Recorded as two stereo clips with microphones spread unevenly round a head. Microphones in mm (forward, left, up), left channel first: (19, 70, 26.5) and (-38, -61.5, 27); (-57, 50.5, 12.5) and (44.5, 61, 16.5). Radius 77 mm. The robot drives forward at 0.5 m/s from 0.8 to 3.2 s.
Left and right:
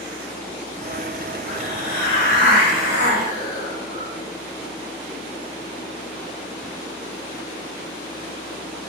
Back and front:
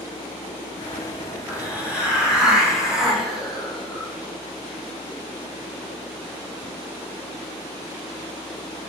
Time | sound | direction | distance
1.5 | a hiss | 80° left | 4 m